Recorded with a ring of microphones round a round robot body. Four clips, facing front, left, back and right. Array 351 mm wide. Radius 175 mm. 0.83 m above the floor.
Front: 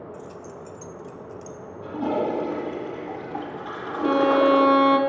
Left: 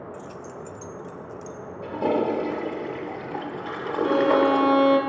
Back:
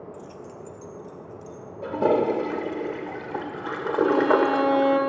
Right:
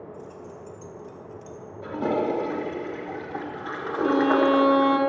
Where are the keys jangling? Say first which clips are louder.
Left 3 dB, front 2 dB; 95° left, 0.8 m; by 1.6 s 40° left, 1.5 m.